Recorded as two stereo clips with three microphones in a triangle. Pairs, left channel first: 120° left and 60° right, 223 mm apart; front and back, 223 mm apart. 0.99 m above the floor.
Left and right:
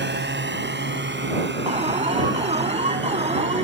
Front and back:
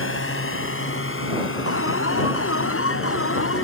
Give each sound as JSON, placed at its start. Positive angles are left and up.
{"t": 0.0, "sound": "a drone", "azimuth_deg": -25}
{"t": 1.7, "sound": "an alarm", "azimuth_deg": 0}